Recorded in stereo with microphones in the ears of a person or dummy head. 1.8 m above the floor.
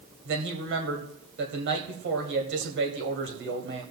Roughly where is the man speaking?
Right.